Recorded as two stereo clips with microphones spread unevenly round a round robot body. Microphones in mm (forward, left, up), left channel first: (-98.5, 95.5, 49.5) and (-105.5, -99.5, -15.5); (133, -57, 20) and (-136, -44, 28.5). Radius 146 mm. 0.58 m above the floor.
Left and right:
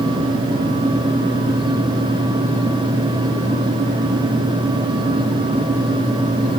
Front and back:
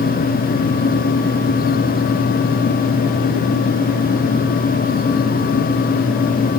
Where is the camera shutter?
No camera shutter in this recording.